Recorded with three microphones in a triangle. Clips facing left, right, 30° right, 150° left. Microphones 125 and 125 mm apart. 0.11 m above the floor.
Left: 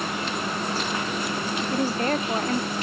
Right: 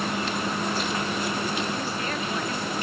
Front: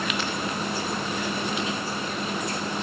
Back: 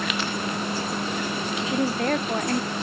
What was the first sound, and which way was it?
A woman speaking, 135° left.